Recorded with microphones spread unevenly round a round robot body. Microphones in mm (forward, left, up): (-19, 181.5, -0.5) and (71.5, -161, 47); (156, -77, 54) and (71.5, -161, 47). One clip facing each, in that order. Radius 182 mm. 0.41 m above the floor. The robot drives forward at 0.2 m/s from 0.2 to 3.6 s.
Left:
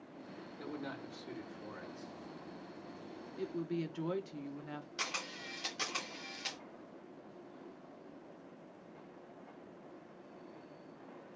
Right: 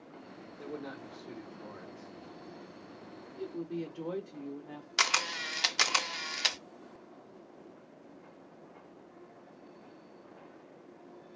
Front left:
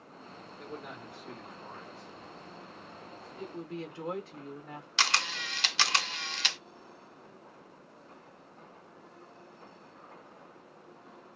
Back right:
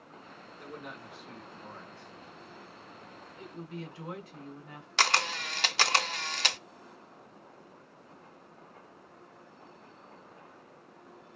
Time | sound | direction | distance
0.6 | a man speaking | 95° left | 1.1 m
3.4 | a woman speaking | 90° left | 0.9 m
5.0 | a camera shutter | 85° right | 0.6 m